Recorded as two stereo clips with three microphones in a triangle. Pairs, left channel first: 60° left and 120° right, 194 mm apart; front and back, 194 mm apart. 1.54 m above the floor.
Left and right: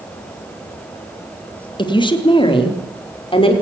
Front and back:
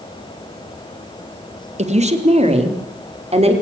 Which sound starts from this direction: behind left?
A woman speaking, at 1.8 s.